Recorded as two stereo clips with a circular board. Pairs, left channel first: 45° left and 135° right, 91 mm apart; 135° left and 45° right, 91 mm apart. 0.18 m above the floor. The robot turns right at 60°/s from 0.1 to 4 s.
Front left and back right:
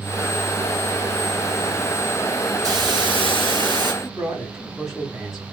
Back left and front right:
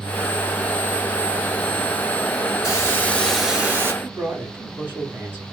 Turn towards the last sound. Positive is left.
turn(degrees=-50)